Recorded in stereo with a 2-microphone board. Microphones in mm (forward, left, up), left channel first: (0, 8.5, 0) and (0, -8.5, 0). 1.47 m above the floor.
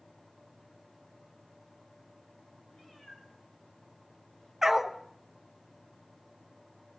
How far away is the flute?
No flute in this recording.